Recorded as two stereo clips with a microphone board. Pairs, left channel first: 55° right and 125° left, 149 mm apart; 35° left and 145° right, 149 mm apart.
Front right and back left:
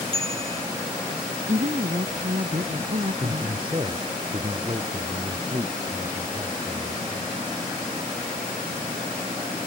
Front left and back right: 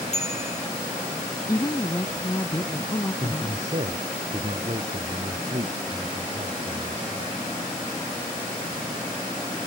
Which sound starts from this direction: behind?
A man speaking, at 3.2 s.